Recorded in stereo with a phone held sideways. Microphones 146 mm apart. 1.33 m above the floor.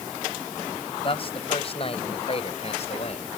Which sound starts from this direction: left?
A man speaking, at 1.0 s.